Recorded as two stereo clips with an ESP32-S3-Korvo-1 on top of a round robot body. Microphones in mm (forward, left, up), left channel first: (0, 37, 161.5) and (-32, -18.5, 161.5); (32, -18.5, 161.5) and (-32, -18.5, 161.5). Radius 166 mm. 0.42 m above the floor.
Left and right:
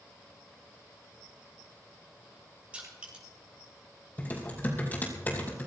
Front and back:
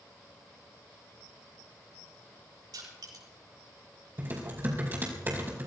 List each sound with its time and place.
2.7 s crushing: 170° left, 8 m
4.2 s typing on a keyboard: 120° left, 4 m